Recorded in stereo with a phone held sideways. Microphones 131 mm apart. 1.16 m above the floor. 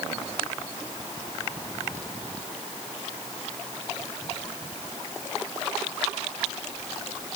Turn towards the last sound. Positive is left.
No sound to turn to.